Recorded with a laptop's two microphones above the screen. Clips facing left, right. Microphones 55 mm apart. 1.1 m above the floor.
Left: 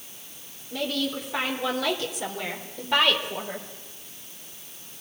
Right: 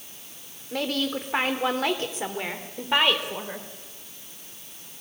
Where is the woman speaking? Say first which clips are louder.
Right 1 dB; 60° right (ahead or behind), 3.5 m; by 3.7 s 15° right (ahead or behind), 4 m.